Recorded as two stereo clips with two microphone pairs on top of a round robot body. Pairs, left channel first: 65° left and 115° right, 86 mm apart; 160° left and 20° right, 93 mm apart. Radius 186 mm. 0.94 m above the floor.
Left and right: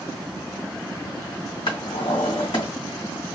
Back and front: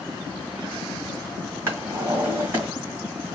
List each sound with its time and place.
1.7 s a drawer: 45° left, 1.4 m